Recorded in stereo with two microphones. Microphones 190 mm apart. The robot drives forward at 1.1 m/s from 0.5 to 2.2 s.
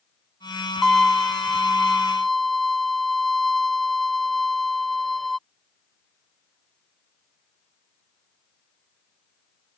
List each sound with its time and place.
0.8 s a violin: centre (ahead or behind)